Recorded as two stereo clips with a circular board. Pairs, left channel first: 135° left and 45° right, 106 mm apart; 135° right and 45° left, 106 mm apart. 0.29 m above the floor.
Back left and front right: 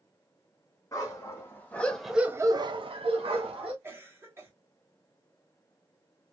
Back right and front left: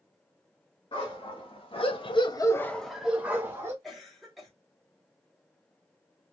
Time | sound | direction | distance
0.9 | a dog barking | 165° right | 1.4 m
3.8 | a cough | 45° right | 1.1 m